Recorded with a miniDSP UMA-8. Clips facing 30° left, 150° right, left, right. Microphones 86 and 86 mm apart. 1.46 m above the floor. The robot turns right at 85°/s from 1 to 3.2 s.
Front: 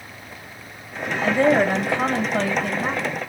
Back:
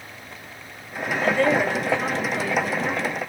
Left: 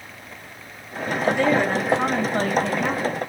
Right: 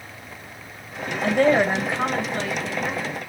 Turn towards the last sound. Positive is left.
turn(degrees=110)